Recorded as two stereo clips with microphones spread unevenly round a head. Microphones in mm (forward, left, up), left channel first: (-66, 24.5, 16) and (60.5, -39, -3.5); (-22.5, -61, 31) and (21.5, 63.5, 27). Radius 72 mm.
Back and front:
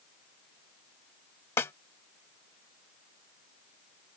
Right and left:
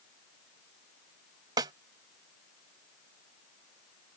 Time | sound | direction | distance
1.6 | a snare drum | 115° left | ?